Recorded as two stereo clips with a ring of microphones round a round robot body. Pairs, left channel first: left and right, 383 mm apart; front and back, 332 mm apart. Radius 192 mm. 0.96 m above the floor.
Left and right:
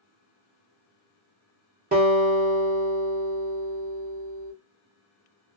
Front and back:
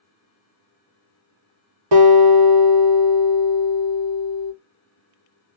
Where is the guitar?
155° right, 1.2 m.